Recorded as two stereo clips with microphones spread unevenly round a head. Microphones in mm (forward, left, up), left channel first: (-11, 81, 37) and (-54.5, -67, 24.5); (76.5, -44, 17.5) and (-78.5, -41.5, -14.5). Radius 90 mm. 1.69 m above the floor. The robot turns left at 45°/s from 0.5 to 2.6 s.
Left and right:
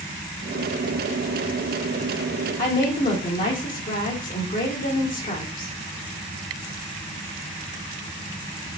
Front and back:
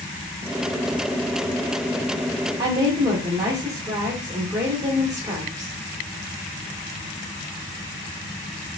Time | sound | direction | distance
2.6 | a woman speaking | 105° left | 1.1 m